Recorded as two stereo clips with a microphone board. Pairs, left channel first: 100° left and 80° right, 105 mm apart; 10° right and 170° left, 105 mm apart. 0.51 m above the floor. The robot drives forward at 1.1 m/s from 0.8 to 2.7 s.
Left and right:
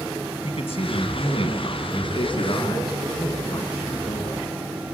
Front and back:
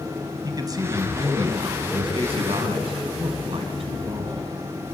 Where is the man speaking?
120° left, 3 m; by 4.5 s 145° left, 4.5 m.